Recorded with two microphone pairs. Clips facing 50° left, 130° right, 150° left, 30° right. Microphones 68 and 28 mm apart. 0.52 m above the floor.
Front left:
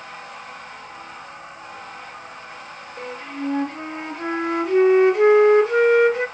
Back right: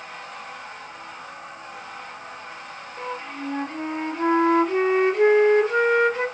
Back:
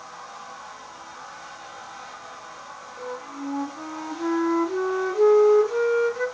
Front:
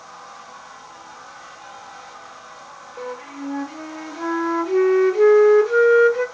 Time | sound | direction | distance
3.0 | a flute | 30° right | 3 m